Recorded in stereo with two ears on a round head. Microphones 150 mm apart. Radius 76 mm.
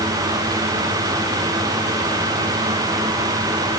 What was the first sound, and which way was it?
Only background noise.